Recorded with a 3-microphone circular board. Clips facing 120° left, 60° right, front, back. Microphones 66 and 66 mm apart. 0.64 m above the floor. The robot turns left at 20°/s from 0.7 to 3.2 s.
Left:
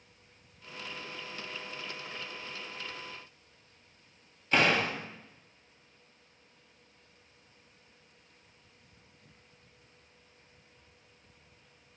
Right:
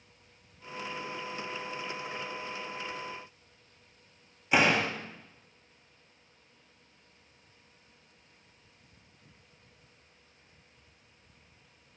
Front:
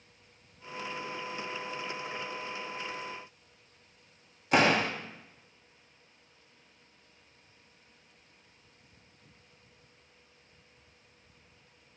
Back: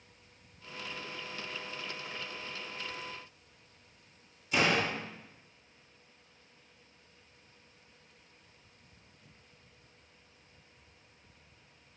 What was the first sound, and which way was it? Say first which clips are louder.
A door slam: right 1 dB, front 4 dB; 15° left.